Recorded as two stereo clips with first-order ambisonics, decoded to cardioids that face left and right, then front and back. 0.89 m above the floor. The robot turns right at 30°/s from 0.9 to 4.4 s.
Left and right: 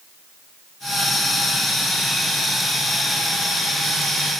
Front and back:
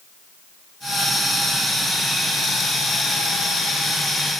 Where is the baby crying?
No baby crying in this recording.